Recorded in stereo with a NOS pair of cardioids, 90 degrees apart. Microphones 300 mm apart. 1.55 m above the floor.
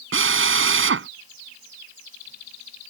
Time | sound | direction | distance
0.1 | a drill | 40° right | ?